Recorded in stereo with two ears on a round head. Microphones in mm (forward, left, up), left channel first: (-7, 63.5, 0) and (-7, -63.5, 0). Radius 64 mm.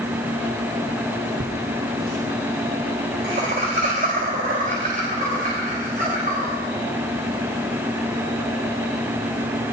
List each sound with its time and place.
1.4 s laughter: 80° right, 1.2 m; by 6.5 s 60° right (ahead or behind), 7.5 m